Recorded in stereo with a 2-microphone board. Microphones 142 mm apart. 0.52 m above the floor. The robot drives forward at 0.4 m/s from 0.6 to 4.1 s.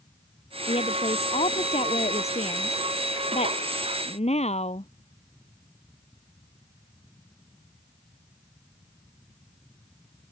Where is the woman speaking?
45° left (ahead or behind); by 4.9 s 50° left (ahead or behind).